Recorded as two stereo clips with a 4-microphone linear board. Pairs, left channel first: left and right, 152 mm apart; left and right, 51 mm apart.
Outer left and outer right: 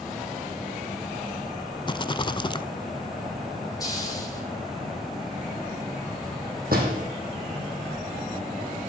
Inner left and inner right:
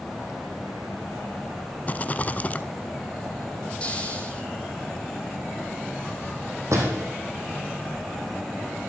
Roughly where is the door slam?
Right.